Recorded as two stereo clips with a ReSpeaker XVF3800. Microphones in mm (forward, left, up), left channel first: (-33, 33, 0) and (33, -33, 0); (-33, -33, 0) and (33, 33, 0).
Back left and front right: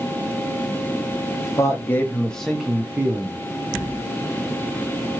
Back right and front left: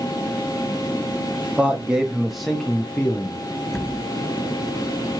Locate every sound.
1.4 s a man speaking: 115° left, 1.0 m; by 3.4 s 75° right, 0.9 m